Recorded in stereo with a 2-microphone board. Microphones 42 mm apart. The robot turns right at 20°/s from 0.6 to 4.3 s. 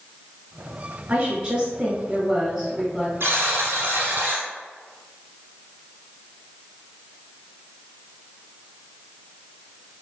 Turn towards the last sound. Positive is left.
turn(degrees=-45)  # may be behind; listen again after turning